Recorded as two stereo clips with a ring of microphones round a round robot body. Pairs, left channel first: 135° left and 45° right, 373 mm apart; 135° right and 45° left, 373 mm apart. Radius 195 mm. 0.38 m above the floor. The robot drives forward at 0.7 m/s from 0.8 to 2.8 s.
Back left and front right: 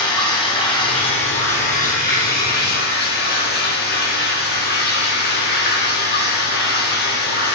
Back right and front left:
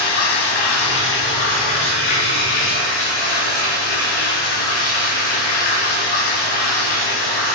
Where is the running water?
150° right, 2 m; by 7.6 s 160° right, 3.5 m.